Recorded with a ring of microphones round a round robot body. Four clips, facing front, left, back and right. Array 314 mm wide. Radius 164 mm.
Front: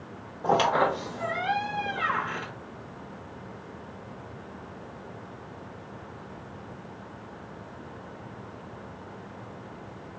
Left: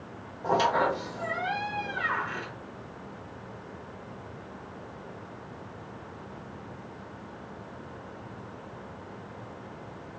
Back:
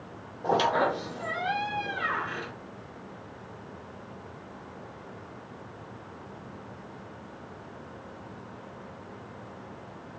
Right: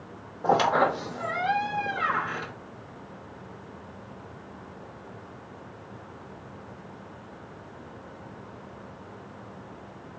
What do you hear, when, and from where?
0.4 s a squeak: 70° right, 0.9 m